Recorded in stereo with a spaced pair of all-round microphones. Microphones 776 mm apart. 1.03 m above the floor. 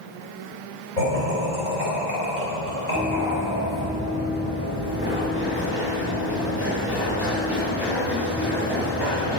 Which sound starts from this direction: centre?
Running footsteps, at 3.0 s.